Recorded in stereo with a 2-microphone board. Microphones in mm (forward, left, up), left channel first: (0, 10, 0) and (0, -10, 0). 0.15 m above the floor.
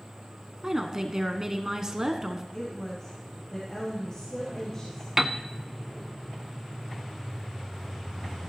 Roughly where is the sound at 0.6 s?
Right.